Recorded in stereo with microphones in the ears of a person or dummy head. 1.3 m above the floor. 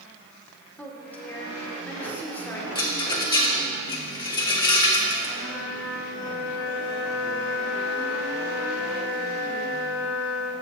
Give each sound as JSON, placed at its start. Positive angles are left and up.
{"t": 0.8, "sound": "a woman speaking", "side_deg": 5, "distance_m": 1.2}
{"t": 2.8, "sound": "a rattle", "side_deg": 30, "distance_m": 1.0}
{"t": 5.4, "sound": "a flute", "side_deg": 5, "distance_m": 2.5}